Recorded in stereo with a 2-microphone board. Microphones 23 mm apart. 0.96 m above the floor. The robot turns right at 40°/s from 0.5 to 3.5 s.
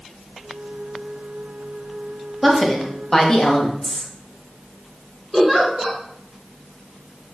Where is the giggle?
15° right (ahead or behind), 1.3 m.